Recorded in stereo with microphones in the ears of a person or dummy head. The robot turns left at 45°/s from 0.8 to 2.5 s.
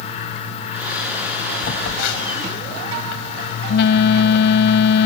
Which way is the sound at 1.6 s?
110° left.